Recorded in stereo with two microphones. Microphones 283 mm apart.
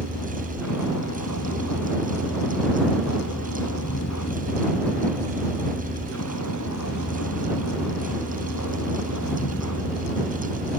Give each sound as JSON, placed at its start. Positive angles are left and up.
{"t": 0.0, "sound": "a vehicle", "side_deg": 85}